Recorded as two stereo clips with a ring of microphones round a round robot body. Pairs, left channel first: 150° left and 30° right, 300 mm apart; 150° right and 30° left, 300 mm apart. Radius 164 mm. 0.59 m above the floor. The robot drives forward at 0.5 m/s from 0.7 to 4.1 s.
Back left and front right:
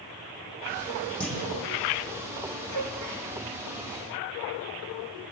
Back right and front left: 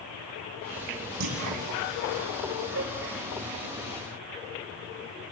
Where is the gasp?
20° right, 8.5 m; by 3.2 s 25° right, 8 m.